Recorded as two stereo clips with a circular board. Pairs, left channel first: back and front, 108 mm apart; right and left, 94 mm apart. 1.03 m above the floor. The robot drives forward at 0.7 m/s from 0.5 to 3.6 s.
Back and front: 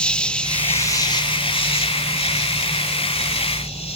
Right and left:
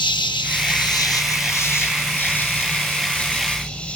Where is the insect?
100° right, 0.7 m; by 4.0 s 165° right, 2.5 m.